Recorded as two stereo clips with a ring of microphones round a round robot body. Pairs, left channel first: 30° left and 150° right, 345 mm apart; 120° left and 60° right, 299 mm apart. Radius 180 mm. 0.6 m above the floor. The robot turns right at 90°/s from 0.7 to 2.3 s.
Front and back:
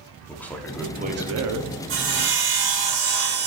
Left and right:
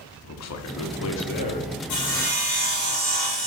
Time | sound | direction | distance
0.3 | a man speaking | 115° left | 1.0 m
1.9 | sawing | 155° left | 1.7 m